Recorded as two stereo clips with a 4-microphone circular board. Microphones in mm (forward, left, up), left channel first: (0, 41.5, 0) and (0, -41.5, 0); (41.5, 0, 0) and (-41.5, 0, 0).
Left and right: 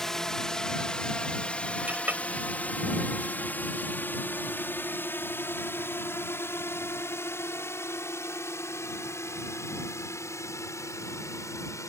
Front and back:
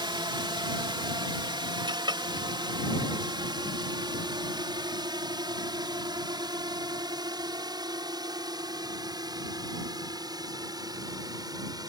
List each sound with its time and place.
0.0 s a drone: 175° left; by 11.9 s 140° left
1.9 s a clink: 160° right